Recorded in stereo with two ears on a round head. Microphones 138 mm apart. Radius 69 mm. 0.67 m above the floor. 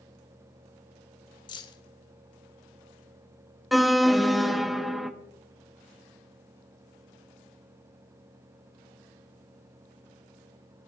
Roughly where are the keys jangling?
Left.